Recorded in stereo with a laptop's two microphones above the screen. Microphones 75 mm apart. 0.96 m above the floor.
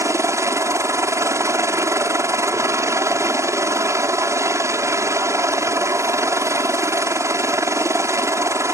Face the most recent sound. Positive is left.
turn(degrees=-40)  # may be behind; listen again after turning